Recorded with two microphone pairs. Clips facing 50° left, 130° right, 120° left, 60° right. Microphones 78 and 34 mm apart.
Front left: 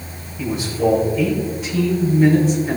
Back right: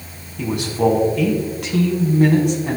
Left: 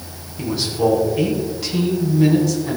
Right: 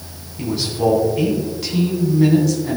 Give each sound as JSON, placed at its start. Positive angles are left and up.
{"t": 0.4, "sound": "a man speaking", "azimuth_deg": -150, "distance_m": 3.5}